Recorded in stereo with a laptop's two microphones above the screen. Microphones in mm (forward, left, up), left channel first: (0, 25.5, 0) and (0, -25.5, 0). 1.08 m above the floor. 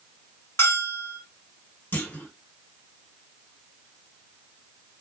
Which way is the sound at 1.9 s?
40° left (ahead or behind).